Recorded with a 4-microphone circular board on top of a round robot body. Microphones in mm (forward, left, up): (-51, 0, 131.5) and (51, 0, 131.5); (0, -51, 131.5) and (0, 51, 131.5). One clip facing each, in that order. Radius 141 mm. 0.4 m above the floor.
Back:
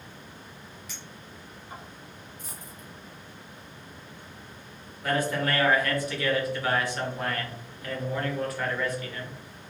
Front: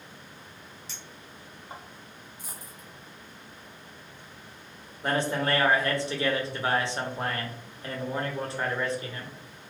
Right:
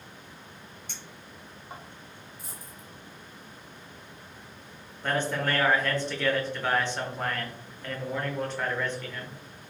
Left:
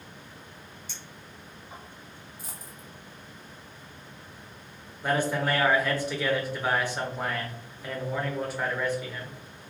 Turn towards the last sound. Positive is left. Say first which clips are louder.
# even, left 2 dB
turn(degrees=20)